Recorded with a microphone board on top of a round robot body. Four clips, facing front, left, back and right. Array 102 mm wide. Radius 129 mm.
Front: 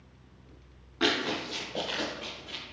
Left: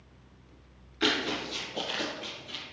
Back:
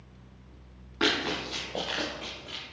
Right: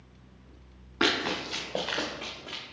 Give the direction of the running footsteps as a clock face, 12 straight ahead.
4 o'clock.